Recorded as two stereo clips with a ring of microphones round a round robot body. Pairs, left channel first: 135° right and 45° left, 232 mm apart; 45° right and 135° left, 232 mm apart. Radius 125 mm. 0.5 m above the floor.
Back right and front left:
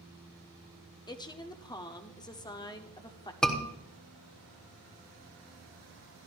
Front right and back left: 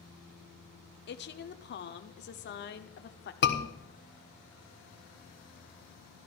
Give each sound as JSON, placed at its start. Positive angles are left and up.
{"t": 1.1, "sound": "a woman speaking", "azimuth_deg": -65, "distance_m": 1.0}
{"t": 3.4, "sound": "a scream", "azimuth_deg": -50, "distance_m": 1.4}